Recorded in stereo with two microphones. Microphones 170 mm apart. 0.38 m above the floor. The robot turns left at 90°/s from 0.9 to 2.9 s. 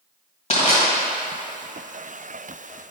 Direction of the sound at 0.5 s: 50° left (ahead or behind).